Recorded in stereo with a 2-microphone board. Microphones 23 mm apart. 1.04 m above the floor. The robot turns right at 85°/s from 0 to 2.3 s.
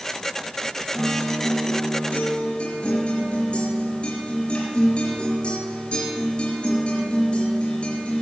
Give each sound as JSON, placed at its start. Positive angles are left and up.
{"t": 0.9, "sound": "a guitar", "azimuth_deg": 15, "distance_m": 4.0}